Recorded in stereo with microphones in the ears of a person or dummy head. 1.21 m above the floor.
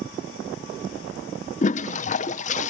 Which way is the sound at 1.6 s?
35° left (ahead or behind).